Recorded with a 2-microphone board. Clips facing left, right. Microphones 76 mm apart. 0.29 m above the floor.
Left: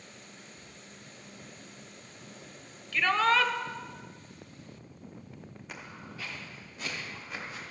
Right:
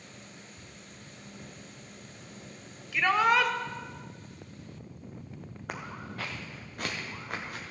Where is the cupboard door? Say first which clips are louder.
Right 1 dB; 45° right (ahead or behind), 2.5 m.